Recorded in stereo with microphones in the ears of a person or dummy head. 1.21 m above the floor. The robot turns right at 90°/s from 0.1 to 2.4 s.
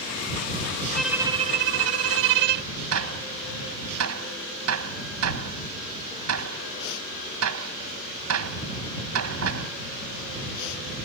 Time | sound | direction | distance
0.9 | a violin | 175° left | ?
2.9 | a gunshot | 85° right | ?